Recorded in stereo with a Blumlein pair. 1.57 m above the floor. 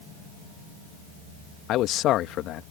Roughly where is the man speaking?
Ahead left.